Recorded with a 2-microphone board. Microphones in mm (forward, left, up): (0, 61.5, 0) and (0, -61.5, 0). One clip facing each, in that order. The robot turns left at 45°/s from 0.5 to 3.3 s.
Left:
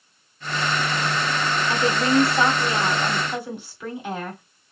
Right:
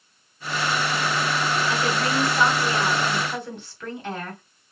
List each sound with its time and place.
1.7 s a woman speaking: 95° left, 1.8 m; by 4.4 s 20° left, 1.8 m